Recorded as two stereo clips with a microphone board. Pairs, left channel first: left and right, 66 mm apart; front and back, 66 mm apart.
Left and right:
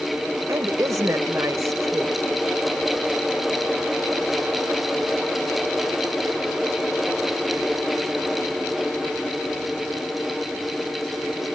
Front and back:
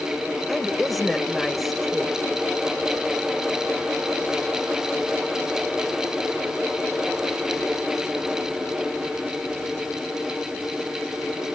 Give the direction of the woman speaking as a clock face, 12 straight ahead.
3 o'clock.